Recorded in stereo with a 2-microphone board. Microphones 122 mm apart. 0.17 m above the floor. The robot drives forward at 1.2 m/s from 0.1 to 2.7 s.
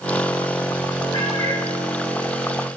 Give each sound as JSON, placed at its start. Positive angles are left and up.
{"t": 1.1, "sound": "a cat meowing", "side_deg": 35, "distance_m": 3.0}